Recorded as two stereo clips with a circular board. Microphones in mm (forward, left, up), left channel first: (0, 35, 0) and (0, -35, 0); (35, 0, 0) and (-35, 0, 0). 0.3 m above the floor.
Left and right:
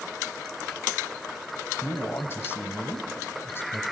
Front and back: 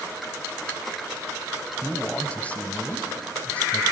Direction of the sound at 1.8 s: 60° left.